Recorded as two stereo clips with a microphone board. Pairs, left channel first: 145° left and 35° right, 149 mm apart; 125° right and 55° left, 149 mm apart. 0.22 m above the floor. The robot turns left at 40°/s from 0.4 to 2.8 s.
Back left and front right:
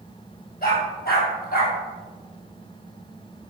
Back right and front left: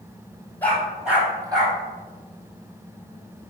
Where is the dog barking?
160° left, 2.5 m; by 1.8 s 110° left, 2.5 m.